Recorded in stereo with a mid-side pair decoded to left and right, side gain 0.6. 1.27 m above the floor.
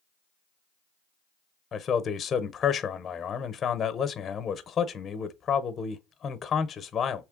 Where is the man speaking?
35° left, 0.7 m.